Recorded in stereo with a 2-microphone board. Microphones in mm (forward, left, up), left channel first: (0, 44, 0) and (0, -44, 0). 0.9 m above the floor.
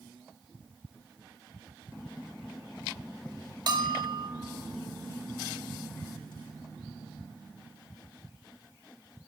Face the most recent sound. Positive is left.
turn(degrees=-55)  # may be behind; listen again after turning